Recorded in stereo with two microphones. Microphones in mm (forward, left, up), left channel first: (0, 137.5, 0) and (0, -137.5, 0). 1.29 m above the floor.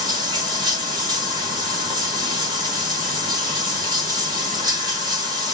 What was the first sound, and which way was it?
Running water, 15° right (ahead or behind).